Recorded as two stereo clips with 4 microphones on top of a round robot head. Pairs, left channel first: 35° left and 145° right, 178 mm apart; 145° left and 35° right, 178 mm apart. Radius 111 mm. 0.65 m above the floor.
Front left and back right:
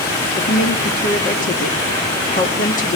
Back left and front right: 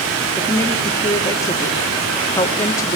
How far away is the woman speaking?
About 1.4 m.